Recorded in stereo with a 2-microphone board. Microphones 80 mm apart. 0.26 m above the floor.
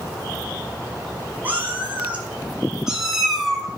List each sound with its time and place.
1.4 s a cat meowing: 20° right (ahead or behind), 3.5 m; by 3.7 s 5° left (ahead or behind), 2.5 m